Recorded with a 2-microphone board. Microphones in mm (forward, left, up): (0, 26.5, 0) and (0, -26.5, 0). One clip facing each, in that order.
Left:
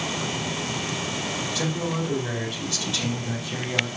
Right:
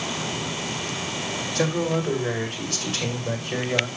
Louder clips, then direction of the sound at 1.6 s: Right 6 dB; 70° right (ahead or behind).